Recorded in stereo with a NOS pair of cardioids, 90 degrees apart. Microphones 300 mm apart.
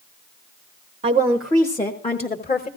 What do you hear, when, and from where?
1.0 s a woman speaking: 20° right, 0.6 m; by 2.7 s 30° left, 1.3 m